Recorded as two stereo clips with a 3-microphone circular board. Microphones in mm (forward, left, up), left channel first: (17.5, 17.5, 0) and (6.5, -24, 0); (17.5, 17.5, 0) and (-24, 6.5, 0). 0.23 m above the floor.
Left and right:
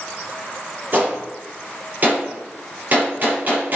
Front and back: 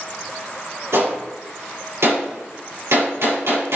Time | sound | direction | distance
0.9 | a gunshot | 155° right | 5 m